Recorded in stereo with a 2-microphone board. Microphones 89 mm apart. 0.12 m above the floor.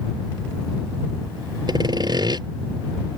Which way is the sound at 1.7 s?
55° right (ahead or behind).